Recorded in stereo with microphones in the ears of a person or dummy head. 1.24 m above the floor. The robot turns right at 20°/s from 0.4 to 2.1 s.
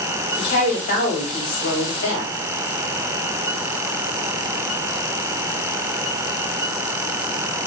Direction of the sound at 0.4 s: 40° left.